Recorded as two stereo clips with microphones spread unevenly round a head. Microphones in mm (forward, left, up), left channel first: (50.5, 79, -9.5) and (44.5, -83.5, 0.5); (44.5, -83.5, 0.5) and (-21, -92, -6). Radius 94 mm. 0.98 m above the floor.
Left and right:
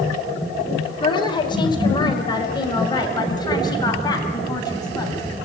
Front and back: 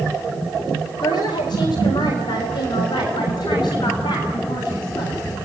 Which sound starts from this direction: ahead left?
A woman speaking, at 1.0 s.